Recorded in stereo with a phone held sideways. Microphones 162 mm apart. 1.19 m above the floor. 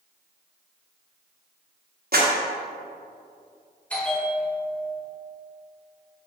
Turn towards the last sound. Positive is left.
turn(degrees=10)  # may be behind; listen again after turning